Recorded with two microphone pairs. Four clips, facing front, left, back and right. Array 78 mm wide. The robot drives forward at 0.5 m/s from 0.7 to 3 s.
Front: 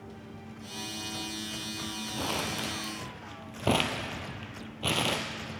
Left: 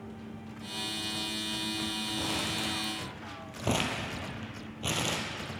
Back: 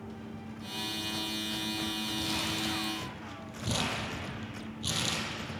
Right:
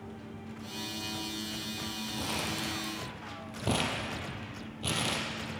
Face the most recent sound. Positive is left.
turn(degrees=10)